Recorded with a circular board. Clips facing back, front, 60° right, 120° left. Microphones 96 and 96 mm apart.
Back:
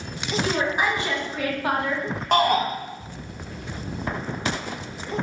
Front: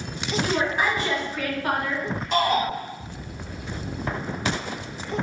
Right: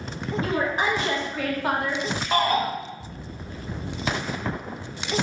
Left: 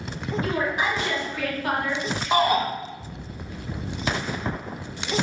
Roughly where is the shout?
Behind.